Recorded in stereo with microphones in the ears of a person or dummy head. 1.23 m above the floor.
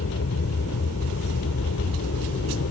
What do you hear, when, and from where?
0.0 s an aircraft: 75° left (ahead or behind); by 2.7 s 70° left (ahead or behind)